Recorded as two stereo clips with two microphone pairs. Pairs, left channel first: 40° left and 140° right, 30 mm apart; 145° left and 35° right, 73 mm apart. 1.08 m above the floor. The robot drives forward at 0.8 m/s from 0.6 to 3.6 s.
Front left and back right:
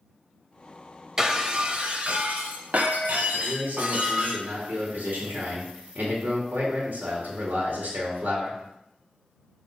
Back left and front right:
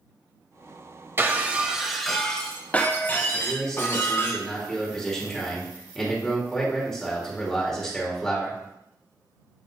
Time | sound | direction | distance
1.2 | breaking glass | 70° right | 1.0 m
3.3 | a man speaking | 125° right | 3 m